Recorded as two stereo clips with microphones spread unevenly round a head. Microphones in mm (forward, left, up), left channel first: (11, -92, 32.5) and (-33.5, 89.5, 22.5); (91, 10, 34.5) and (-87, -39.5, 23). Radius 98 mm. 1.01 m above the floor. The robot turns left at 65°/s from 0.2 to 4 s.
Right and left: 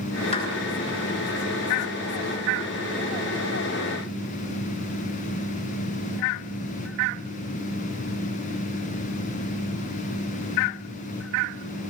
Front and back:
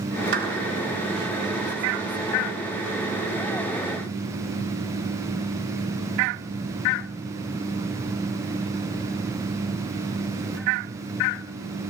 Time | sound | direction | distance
0.3 | a clap | 135° right | 8.5 m